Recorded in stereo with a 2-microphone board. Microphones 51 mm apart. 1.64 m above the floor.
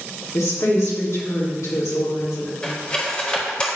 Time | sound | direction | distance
0.3 | a woman speaking | 85° left | 3 m
2.6 | cutlery clinking | 20° left (ahead or behind) | 1.8 m